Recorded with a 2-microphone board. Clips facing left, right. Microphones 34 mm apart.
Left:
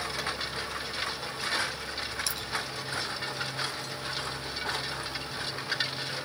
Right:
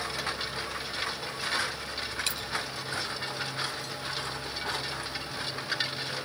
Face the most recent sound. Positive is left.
turn(degrees=-50)  # may be behind; listen again after turning